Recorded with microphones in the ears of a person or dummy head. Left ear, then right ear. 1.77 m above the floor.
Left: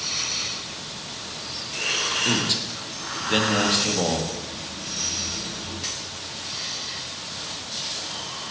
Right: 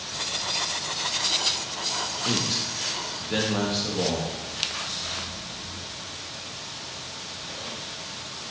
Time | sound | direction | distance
2.2 | a man speaking | 25° left (ahead or behind) | 1.0 m